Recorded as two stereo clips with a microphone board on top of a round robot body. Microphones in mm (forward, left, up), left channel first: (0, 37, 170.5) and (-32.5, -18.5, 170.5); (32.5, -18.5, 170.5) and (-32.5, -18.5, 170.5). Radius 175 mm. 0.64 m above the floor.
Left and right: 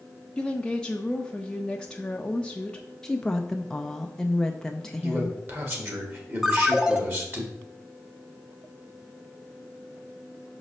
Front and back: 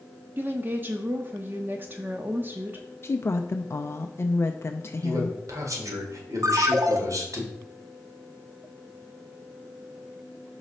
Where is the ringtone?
160° left, 0.8 m.